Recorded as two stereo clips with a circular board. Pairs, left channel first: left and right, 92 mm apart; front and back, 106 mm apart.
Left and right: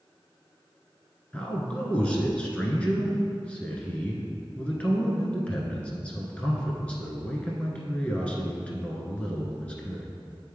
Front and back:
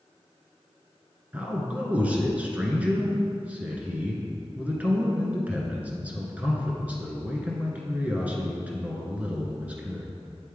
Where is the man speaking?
135° left, 1.1 m.